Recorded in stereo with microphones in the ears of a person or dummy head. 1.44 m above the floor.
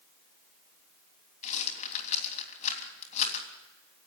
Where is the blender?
No blender in this recording.